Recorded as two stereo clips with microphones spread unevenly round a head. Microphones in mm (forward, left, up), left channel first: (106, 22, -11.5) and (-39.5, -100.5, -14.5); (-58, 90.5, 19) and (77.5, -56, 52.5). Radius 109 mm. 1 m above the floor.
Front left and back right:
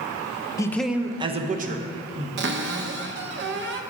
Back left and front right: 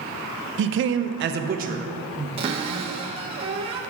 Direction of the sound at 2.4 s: 110° right.